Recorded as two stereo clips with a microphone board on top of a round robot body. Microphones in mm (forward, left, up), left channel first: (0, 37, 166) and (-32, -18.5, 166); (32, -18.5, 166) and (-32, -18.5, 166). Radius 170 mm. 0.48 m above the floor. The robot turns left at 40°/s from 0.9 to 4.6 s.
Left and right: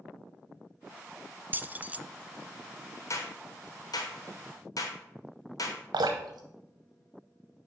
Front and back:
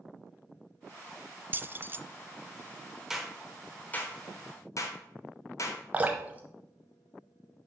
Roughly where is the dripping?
Behind right.